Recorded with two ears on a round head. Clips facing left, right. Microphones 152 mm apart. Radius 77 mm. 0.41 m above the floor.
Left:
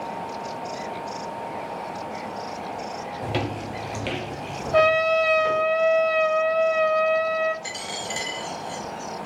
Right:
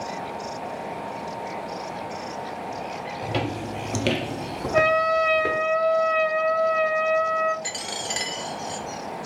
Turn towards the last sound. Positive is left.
turn(degrees=-25)  # may be behind; listen again after turning